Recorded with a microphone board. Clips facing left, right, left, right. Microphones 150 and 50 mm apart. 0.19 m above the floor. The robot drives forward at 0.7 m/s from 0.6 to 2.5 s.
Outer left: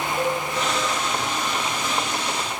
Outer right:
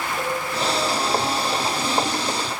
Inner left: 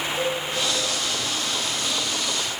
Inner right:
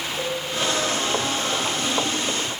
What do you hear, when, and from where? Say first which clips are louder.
0.2 s a cowbell: outer left 3 dB, inner left 2 dB; 5° left (ahead or behind), 0.7 m